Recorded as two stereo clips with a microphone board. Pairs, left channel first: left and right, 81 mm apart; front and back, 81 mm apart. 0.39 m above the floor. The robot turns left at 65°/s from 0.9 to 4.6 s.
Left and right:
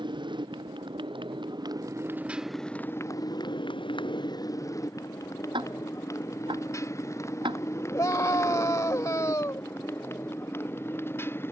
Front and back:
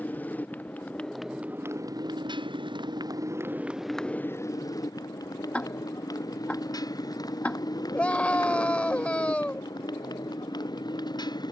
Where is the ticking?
75° right.